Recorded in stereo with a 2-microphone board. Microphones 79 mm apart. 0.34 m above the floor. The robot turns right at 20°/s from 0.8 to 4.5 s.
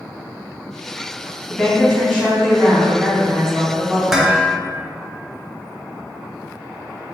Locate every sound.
1.5 s a woman speaking: 155° left, 2.0 m; by 4.3 s 150° right, 2.0 m
4.1 s dishes clattering: 5° right (ahead or behind), 0.6 m; by 4.6 s 10° right (ahead or behind), 0.6 m